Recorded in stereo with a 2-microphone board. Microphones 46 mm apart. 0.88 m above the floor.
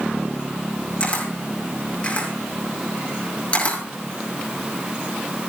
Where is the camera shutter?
30° left (ahead or behind), 6 m.